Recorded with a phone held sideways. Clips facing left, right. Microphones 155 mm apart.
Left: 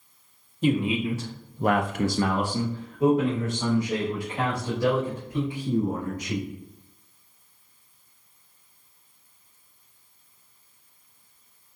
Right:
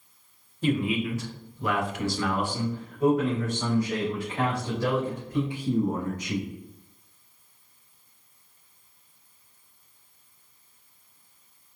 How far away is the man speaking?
About 1.2 m.